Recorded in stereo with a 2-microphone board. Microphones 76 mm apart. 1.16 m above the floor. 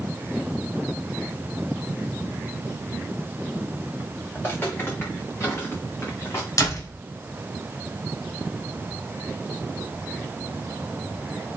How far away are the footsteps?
About 5.5 m.